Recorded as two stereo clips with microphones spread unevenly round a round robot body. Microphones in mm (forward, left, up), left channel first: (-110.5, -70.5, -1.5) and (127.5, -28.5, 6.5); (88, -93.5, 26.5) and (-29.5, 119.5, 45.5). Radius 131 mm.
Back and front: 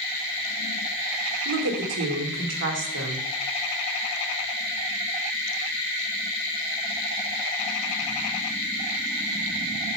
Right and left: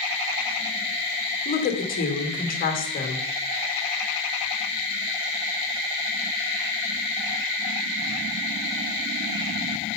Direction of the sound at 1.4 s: 10° right.